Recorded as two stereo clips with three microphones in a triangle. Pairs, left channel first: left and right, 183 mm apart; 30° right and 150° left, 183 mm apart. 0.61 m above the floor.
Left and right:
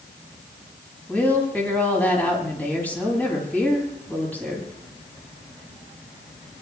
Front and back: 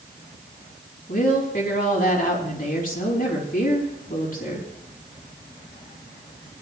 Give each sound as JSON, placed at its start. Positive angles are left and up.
{"t": 1.1, "sound": "a woman speaking", "azimuth_deg": 10, "distance_m": 4.5}